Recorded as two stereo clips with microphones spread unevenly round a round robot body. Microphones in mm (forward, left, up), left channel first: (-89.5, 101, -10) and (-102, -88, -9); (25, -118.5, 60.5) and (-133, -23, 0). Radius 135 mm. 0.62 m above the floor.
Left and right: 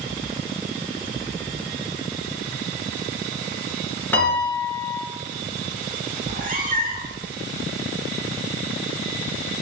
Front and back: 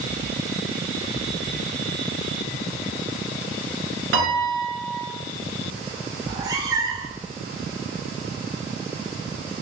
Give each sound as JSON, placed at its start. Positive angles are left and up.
{"t": 4.1, "sound": "a piano", "azimuth_deg": 165, "distance_m": 1.3}
{"t": 6.2, "sound": "a cat meowing", "azimuth_deg": -140, "distance_m": 0.9}